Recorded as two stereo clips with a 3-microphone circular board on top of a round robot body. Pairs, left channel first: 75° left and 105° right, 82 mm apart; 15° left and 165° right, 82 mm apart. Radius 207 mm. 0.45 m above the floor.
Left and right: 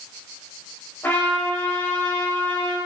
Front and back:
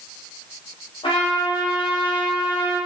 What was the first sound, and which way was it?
A trumpet, 10° left.